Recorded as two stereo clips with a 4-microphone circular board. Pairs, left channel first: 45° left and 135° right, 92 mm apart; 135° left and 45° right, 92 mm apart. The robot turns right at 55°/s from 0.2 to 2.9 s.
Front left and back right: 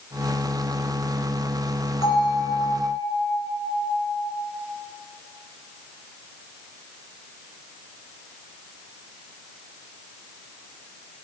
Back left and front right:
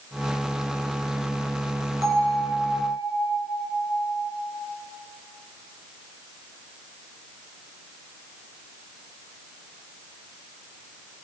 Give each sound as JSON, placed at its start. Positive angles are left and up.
{"t": 2.0, "sound": "a bell", "azimuth_deg": -5, "distance_m": 3.0}